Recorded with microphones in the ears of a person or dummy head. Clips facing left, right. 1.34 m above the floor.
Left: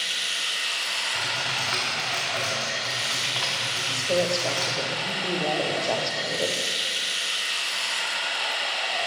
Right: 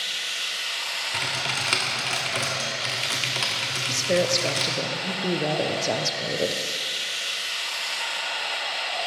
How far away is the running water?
About 1.1 m.